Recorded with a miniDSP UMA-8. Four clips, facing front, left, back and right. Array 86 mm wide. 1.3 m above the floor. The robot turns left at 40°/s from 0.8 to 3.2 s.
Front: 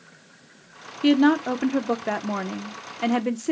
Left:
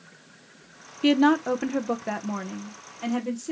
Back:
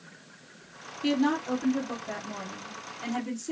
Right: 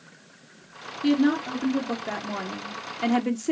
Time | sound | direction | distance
1.0 | a woman speaking | 55° left | 0.8 m